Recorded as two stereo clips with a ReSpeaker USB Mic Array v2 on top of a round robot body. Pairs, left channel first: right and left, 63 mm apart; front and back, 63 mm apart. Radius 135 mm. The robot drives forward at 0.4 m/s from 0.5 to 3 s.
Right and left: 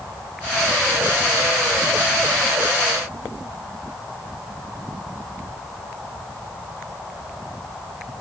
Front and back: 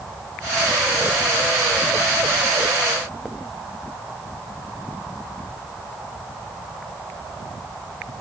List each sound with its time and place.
Only background noise.